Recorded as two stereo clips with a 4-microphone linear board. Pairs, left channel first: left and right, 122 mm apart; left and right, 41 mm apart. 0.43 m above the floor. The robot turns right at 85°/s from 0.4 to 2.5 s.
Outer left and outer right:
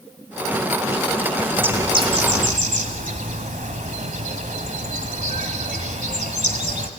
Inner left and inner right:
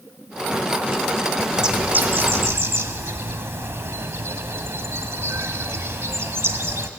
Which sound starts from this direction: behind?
A bird, at 1.5 s.